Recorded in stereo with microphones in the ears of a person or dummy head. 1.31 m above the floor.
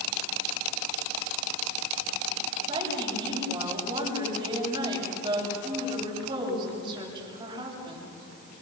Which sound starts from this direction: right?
A woman speaking, at 2.7 s.